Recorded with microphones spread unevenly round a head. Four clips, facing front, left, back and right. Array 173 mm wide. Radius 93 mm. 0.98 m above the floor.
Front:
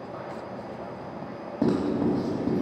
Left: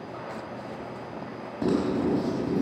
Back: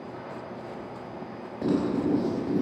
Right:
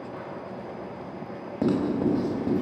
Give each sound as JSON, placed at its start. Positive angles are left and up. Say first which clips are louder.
{"t": 0.0, "sound": "a machine running", "louder": "even, front 2 dB", "azimuth_deg": -35, "distance_m": 4.5}
{"t": 1.6, "sound": "writing", "louder": "right 1 dB, front 1 dB", "azimuth_deg": -35, "distance_m": 5.0}